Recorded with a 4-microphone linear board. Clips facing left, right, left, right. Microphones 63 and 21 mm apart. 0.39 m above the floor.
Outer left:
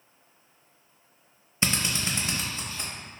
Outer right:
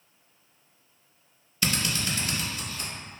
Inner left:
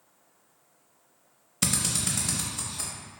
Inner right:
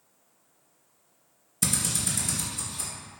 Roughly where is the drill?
Left.